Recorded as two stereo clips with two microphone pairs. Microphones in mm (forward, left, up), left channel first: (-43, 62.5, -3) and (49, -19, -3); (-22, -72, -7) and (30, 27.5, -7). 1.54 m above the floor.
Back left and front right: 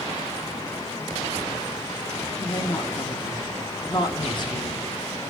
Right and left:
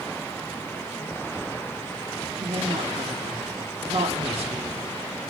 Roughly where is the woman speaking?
Left.